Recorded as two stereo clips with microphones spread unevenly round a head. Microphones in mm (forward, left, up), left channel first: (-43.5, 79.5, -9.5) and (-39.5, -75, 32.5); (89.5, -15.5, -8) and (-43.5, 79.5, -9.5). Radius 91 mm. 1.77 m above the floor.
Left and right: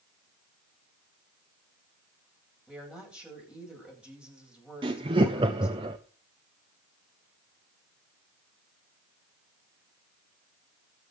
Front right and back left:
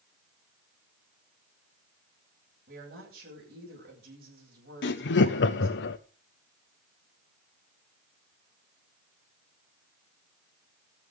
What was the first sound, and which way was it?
A woman speaking, 170° right.